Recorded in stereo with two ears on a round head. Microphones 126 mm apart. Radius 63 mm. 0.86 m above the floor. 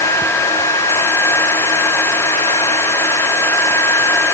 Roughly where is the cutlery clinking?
No cutlery clinking in this recording.